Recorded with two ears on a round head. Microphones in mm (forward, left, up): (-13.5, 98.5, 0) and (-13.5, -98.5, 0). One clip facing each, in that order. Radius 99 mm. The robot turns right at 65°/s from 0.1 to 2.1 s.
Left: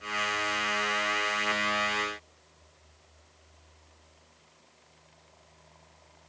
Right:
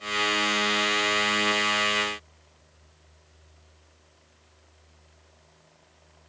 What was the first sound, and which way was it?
Only background noise.